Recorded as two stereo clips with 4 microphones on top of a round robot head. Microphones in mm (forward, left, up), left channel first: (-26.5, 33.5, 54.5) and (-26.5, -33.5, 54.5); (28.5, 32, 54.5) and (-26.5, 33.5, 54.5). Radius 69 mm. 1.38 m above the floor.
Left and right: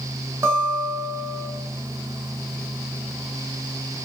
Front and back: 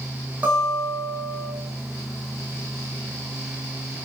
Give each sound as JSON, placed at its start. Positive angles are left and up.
{"t": 0.4, "sound": "a guitar", "azimuth_deg": -125, "distance_m": 1.1}